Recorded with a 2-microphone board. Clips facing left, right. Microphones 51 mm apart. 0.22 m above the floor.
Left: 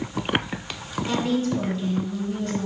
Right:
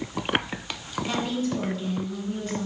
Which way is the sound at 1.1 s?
10° right (ahead or behind).